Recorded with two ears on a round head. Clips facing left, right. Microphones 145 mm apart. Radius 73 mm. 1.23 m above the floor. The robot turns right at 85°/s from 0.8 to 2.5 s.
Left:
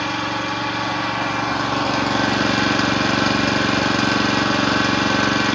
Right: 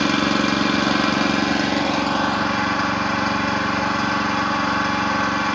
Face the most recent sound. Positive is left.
turn(degrees=45)